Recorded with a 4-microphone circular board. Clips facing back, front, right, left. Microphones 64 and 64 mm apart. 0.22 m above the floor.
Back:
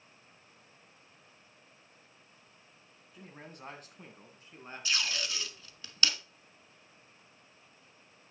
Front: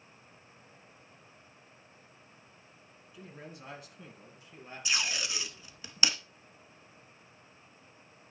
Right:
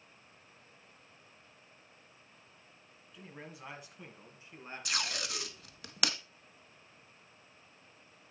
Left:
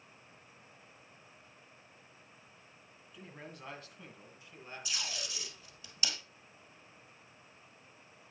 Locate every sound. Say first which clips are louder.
3.1 s a man speaking: front 2 dB, even; straight behind, 1.9 m; by 5.5 s 135° right, 3 m
4.8 s tape being pulled: front 1 dB, right 6 dB; 70° right, 0.8 m